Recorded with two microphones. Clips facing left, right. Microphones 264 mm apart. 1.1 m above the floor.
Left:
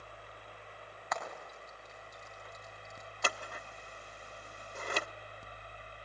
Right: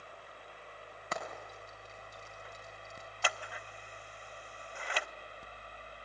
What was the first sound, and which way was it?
Frying, 35° right (ahead or behind).